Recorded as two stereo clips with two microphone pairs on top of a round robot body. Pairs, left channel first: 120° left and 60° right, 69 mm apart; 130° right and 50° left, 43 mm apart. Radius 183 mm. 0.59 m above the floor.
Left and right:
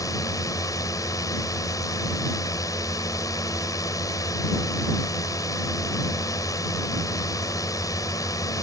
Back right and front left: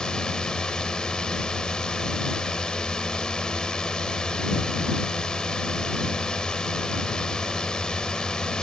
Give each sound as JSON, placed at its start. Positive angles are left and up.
{"t": 0.0, "sound": "a drone", "azimuth_deg": 155}